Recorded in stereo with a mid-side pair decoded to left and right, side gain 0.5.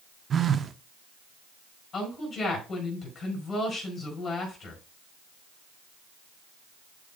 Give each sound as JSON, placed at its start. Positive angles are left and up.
{"t": 0.3, "sound": "a phone buzzing", "azimuth_deg": -40, "distance_m": 0.6}
{"t": 1.9, "sound": "a woman speaking", "azimuth_deg": 30, "distance_m": 4.5}